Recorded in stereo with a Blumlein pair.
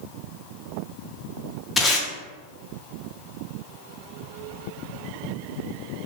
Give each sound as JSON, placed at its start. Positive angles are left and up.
{"t": 1.8, "sound": "tape being pulled", "azimuth_deg": 15, "distance_m": 0.6}